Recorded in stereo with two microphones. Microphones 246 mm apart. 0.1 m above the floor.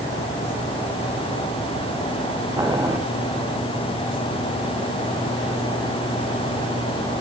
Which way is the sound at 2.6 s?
15° right (ahead or behind).